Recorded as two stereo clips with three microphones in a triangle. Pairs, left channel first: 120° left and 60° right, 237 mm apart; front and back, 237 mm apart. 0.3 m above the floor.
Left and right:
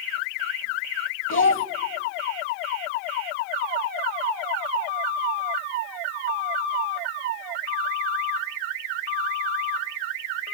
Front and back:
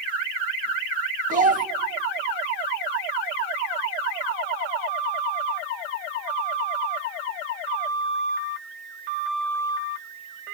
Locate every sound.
1.3 s a child speaking: 130° left, 0.9 m